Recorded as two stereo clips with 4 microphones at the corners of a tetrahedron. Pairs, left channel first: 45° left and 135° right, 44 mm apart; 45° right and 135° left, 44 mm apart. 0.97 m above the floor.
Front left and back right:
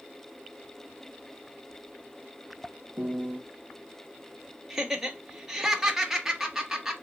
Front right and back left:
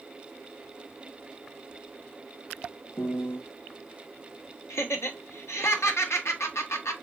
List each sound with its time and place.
3.0 s a piano: 75° right, 0.7 m
4.7 s laughter: 55° right, 1.0 m